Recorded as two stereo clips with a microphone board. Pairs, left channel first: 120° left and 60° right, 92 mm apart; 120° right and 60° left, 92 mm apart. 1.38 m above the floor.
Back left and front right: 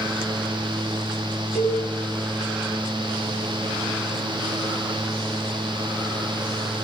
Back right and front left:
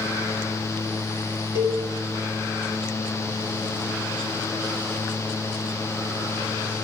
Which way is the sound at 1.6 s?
140° right.